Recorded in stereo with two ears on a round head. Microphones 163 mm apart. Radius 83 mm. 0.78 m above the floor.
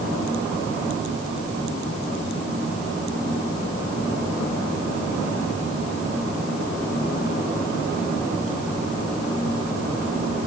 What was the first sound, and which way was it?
Only background noise.